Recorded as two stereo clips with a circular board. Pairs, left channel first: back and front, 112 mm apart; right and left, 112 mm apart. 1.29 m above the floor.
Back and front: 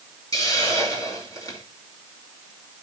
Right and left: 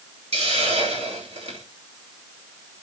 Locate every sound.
0.3 s a hiss: 120° left, 4 m